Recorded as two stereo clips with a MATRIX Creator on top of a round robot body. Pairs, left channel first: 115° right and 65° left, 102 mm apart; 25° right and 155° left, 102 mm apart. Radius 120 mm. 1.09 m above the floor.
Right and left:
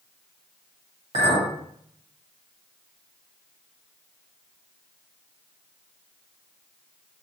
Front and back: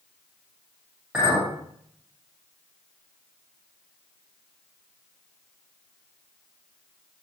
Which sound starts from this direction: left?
A clink, at 1.1 s.